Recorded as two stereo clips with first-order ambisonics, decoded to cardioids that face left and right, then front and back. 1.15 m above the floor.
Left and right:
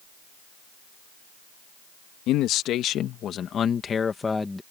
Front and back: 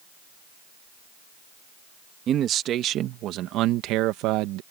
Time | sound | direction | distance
2.3 | a man speaking | 125° left | ?